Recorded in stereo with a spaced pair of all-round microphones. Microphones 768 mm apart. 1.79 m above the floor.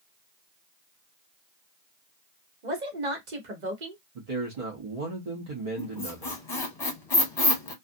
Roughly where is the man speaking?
Right.